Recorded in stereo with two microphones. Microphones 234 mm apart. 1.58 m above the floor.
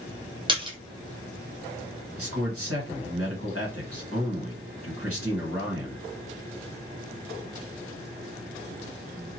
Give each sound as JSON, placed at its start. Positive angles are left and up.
{"t": 0.5, "sound": "a splash", "side_deg": -20, "distance_m": 0.7}
{"t": 2.2, "sound": "a man speaking", "side_deg": -75, "distance_m": 1.3}